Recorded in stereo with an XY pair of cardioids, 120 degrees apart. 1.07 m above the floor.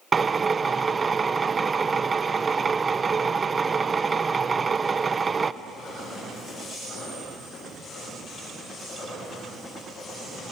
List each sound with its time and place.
0.1 s a drill: 25° right, 0.6 m